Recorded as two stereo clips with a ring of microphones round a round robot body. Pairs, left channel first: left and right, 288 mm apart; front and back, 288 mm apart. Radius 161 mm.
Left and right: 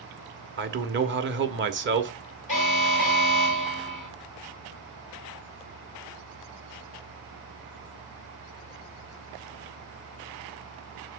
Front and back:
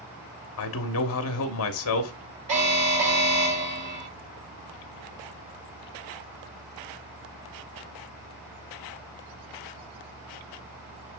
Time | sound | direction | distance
0.6 | a man speaking | 40° right | 1.3 m
2.5 | an alarm | 155° left | 6 m